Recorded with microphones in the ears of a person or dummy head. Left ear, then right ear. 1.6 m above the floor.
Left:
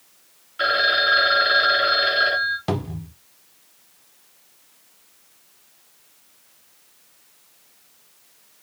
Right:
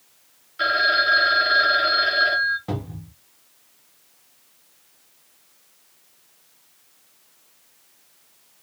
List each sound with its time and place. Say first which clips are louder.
0.6 s a phone ringing: even; centre (ahead or behind), 0.7 m
2.7 s a cupboard door: left 5 dB; 80° left, 1.0 m